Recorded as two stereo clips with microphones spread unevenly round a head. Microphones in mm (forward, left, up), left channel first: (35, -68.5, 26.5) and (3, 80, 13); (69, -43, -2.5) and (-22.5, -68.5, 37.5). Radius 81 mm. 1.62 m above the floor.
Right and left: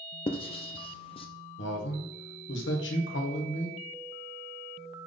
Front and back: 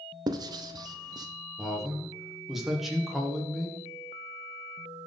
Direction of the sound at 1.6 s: 75° right.